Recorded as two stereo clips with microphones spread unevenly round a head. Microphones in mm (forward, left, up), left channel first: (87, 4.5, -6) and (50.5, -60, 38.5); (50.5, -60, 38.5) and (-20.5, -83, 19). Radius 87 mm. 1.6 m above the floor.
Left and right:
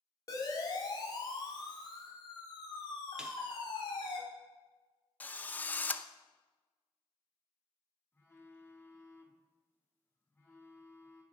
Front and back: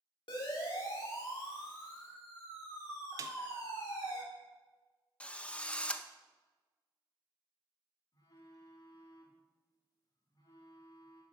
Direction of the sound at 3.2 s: 150° left.